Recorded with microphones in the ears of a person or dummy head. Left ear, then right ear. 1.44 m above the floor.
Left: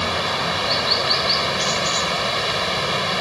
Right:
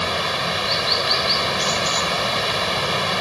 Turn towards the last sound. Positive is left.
turn(degrees=-5)  # may be behind; listen again after turning